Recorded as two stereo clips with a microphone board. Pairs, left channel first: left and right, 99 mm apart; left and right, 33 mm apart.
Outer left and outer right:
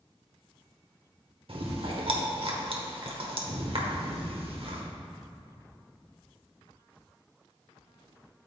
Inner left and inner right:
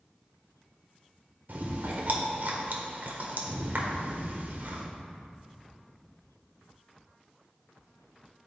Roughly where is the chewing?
Right.